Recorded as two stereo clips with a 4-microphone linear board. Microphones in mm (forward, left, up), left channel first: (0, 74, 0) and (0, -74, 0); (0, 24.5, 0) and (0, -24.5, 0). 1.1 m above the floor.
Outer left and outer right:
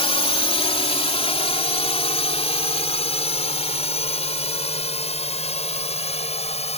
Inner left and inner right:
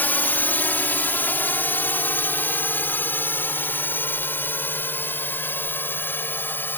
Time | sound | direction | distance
0.0 | a drone | 40° left (ahead or behind) | ?